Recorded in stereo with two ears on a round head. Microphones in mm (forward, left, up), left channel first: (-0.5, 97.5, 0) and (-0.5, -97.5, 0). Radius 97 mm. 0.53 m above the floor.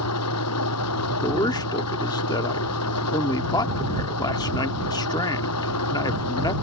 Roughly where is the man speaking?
Centre.